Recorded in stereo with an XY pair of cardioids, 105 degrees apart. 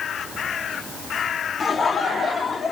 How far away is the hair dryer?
I don't hear a hair dryer.